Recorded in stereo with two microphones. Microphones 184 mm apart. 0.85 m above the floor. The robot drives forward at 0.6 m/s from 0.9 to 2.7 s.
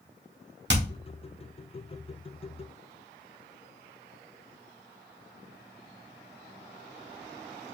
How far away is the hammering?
About 1.2 m.